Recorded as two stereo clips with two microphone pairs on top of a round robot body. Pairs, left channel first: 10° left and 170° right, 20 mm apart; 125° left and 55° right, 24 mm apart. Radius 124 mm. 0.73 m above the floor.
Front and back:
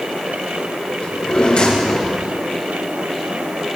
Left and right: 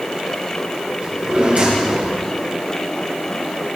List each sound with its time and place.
1.0 s a drawer: 25° right, 4.5 m